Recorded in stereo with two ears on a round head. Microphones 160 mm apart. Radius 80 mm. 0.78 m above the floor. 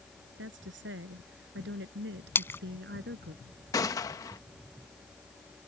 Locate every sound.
0.4 s a woman speaking: 70° right (ahead or behind); by 3.4 s 60° right (ahead or behind)
2.4 s a splash: 10° left (ahead or behind)
3.7 s a gunshot: 20° left (ahead or behind)